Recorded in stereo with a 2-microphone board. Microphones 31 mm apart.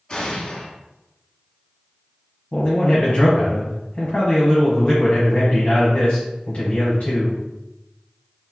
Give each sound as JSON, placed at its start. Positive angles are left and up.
{"t": 0.1, "sound": "an explosion", "side_deg": 20, "distance_m": 1.0}
{"t": 2.5, "sound": "a man speaking", "side_deg": 35, "distance_m": 1.1}